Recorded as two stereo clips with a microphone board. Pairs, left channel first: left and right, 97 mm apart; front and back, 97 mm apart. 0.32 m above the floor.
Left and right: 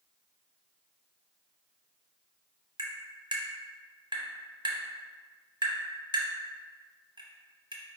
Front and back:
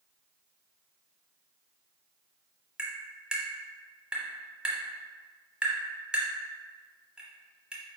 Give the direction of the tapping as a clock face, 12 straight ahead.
3 o'clock.